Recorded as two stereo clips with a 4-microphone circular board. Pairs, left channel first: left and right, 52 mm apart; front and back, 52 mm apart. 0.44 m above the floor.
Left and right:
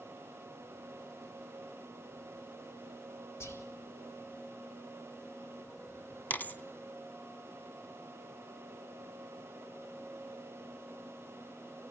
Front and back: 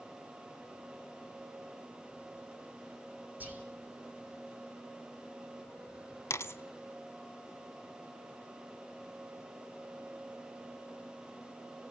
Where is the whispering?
120° left, 4 m.